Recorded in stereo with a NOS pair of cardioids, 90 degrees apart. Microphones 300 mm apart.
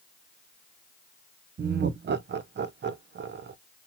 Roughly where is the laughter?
Ahead right.